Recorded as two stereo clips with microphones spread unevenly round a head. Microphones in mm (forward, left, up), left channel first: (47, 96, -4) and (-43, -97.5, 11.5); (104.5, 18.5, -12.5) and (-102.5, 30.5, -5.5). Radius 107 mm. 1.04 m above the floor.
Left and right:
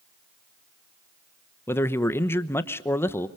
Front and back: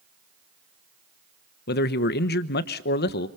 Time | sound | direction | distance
1.7 | a man speaking | 5° right | 1.0 m